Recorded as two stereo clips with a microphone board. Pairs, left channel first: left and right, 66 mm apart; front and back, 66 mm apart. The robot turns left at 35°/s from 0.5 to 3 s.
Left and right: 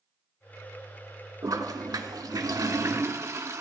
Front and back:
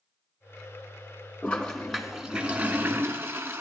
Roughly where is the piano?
I don't hear a piano.